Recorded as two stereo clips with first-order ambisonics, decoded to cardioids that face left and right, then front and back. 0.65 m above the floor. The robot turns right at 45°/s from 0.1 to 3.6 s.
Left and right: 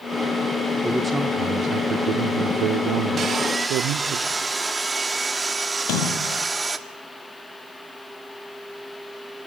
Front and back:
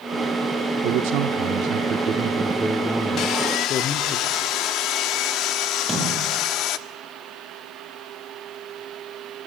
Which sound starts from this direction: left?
A splash, at 5.8 s.